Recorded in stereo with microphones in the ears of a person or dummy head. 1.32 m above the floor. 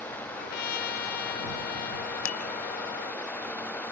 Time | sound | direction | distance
0.3 | a trumpet | 50° left (ahead or behind) | ?
2.2 | dishes clattering | 85° left | ?